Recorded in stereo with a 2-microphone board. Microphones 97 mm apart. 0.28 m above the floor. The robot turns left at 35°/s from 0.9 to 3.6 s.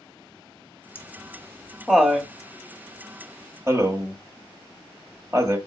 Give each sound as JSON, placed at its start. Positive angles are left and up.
{"t": 0.9, "sound": "laughter", "side_deg": 20, "distance_m": 1.0}